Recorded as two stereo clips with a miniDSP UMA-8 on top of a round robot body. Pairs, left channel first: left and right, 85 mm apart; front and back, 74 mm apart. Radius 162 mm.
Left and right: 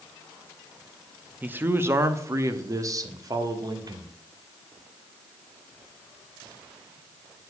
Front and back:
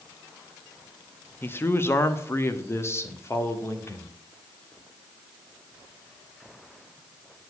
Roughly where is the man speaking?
Ahead right.